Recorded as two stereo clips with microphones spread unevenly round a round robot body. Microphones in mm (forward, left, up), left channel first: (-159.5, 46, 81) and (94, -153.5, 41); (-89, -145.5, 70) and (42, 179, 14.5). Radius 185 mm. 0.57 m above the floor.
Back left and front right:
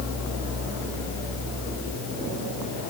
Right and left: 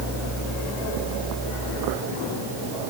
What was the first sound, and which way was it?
Only background noise.